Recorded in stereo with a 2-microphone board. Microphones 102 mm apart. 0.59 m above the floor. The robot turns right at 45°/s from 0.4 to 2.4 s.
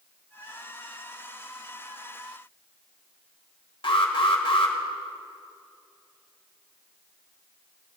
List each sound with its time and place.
3.8 s an alarm: 65° left (ahead or behind), 1.6 m